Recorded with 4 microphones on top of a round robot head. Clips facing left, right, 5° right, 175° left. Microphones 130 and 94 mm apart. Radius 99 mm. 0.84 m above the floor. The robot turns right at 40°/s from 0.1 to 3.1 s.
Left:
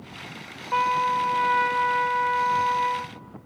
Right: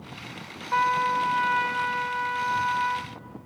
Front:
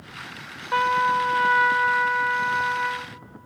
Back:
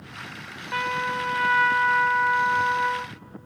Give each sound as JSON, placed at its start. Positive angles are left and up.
{"t": 0.7, "sound": "a trumpet", "azimuth_deg": 25, "distance_m": 0.6}